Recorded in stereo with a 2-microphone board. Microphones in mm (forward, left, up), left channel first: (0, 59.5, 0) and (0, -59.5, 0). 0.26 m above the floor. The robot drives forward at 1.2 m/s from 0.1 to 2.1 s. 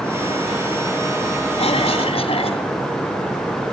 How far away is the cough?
About 2.5 m.